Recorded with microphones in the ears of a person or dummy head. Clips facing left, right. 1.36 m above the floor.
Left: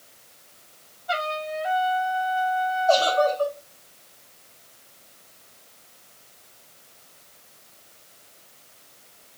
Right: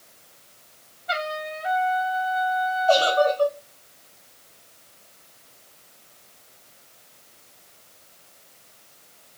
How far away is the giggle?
About 4.5 m.